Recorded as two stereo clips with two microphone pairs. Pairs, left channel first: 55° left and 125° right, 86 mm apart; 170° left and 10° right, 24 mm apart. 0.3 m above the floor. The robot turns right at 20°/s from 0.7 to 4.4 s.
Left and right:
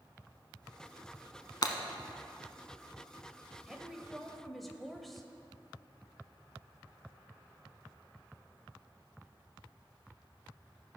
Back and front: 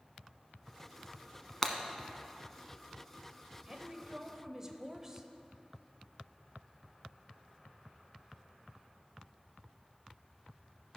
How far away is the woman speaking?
About 0.9 m.